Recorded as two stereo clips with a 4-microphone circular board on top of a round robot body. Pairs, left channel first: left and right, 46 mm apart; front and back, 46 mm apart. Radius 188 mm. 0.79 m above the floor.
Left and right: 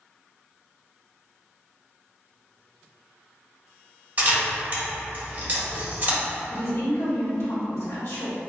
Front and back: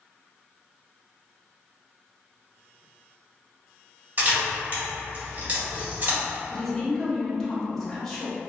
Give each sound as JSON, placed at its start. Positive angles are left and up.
{"t": 4.2, "sound": "a camera shutter", "azimuth_deg": -135, "distance_m": 1.6}
{"t": 6.5, "sound": "a woman speaking", "azimuth_deg": 80, "distance_m": 1.3}